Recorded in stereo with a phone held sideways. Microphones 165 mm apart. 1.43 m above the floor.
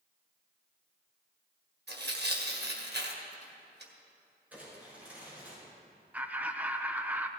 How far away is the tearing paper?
About 1.7 m.